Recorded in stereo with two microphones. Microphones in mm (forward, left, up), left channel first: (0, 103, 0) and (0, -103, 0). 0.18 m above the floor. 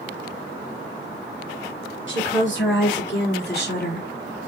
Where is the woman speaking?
65° left (ahead or behind), 4 m; by 4.5 s 35° left (ahead or behind), 1.9 m.